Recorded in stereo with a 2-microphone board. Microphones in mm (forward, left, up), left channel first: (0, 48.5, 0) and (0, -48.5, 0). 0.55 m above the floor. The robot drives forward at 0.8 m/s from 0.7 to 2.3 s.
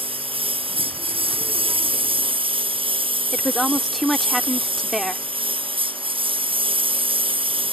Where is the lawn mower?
85° right; by 7.7 s 75° right (ahead or behind).